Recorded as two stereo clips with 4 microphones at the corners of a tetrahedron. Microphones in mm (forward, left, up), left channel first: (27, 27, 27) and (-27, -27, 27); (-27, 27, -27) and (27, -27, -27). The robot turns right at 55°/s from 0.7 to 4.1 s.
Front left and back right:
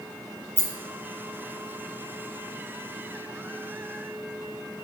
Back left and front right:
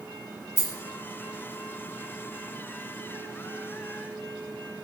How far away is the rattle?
About 1.7 m.